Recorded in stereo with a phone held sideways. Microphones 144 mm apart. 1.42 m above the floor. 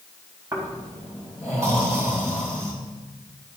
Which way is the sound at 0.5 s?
20° right (ahead or behind).